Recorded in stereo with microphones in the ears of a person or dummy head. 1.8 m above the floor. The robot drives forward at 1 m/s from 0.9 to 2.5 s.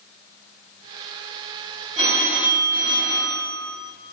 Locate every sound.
2.0 s a phone ringing: 70° right (ahead or behind), 1.9 m; by 3.8 s 60° right (ahead or behind), 2 m